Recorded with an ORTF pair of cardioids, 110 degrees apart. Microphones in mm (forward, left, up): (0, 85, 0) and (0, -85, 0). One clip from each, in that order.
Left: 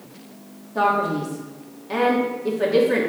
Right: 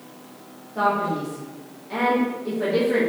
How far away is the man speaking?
About 2.5 m.